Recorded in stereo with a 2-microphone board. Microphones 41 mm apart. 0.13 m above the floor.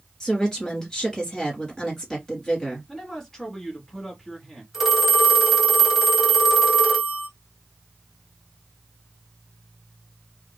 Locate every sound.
0.2 s a woman speaking: 15° left (ahead or behind), 1.7 m
2.9 s a man speaking: 10° left (ahead or behind), 1.5 m
4.7 s a phone ringing: 5° right (ahead or behind), 0.9 m